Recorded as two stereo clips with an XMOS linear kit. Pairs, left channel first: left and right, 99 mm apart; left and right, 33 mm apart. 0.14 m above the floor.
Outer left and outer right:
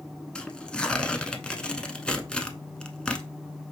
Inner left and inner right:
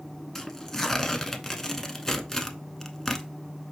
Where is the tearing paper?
10° left (ahead or behind), 0.6 m.